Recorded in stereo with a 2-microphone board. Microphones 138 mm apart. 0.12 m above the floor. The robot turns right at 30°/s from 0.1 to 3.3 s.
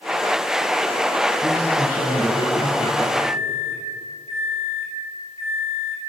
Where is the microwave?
40° right (ahead or behind), 2 m; by 6.0 s 45° right (ahead or behind), 2 m.